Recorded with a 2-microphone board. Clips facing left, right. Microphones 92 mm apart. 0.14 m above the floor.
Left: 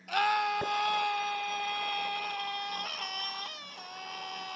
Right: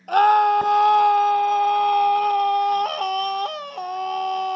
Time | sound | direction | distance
0.1 | a scream | 50° right (ahead or behind) | ?